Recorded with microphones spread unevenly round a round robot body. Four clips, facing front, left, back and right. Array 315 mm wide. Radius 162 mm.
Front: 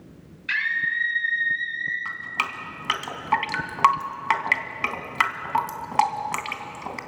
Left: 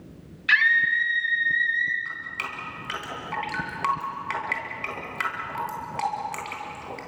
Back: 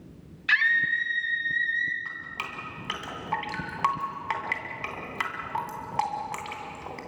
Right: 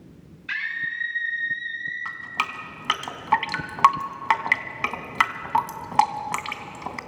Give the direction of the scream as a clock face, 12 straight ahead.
8 o'clock.